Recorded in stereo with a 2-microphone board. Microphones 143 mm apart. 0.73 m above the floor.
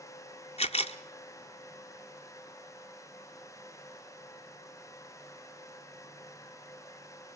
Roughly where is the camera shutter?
Left.